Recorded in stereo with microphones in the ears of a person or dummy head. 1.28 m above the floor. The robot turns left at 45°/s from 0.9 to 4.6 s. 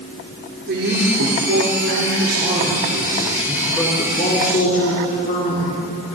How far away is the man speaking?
About 3.5 m.